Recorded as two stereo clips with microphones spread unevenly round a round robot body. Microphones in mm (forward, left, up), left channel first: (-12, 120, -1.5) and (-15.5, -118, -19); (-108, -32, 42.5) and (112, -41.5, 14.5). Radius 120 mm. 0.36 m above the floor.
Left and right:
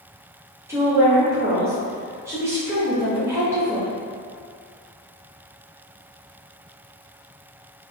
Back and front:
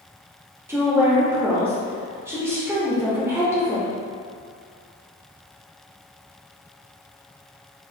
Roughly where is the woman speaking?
Ahead right.